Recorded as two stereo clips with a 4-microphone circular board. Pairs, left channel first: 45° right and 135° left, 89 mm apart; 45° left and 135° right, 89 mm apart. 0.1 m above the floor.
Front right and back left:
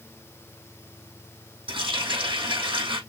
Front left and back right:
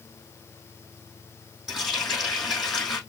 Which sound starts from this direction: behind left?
A running tap, at 1.7 s.